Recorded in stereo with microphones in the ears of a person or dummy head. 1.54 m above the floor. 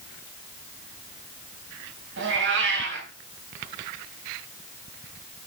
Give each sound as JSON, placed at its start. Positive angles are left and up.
{"t": 2.2, "sound": "a cat meowing", "side_deg": -65, "distance_m": 3.0}